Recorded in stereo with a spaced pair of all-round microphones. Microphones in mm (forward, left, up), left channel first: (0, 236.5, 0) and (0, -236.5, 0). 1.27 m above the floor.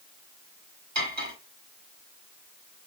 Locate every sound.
0.9 s cutlery clinking: 35° right (ahead or behind), 1.6 m